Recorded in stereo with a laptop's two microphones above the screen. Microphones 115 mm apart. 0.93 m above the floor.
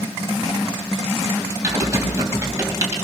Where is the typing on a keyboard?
30° right (ahead or behind), 2.5 m.